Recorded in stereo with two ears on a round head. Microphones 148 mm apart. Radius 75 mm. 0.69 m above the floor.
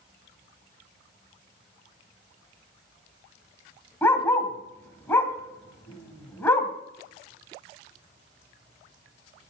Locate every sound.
4.0 s a dog barking: 15° left (ahead or behind), 2 m